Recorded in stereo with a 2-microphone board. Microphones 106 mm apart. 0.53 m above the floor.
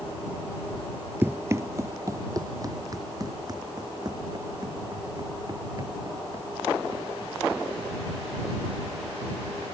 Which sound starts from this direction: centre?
Running footsteps, at 1.2 s.